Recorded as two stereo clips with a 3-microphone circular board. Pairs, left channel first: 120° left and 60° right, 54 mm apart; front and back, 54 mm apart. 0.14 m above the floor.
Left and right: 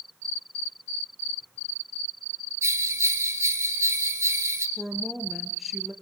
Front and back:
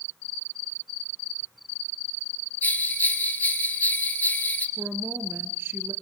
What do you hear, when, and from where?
2.6 s a bell: 50° right, 1.8 m
4.8 s a woman speaking: 145° right, 2.5 m